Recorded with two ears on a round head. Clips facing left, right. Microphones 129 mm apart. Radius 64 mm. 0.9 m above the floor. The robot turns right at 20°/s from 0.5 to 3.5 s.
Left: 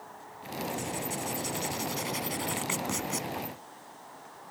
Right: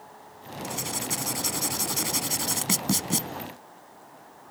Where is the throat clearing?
I don't hear throat clearing.